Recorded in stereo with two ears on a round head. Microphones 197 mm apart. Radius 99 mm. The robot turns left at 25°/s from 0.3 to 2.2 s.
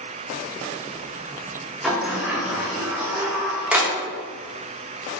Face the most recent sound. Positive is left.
turn(degrees=-5)  # may be behind; listen again after turning